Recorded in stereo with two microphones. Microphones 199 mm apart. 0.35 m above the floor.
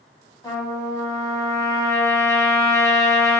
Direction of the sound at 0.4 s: 15° left (ahead or behind).